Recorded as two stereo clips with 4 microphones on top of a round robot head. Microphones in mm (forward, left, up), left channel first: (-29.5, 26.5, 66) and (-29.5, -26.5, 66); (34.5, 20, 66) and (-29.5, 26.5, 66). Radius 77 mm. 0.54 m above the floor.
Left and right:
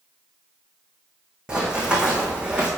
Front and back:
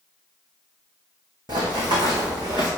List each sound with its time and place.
1.5 s running footsteps: 165° right, 2.5 m; by 2.7 s 160° right, 3 m